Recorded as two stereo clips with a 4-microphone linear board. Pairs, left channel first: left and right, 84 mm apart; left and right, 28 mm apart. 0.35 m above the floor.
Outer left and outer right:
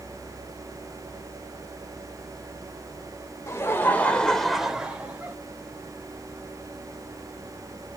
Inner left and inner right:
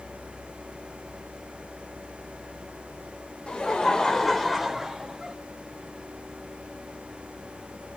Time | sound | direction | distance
3.5 | laughter | 30° left (ahead or behind) | 1.1 m